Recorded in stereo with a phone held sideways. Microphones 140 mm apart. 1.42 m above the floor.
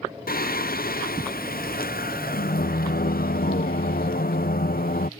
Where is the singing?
90° left.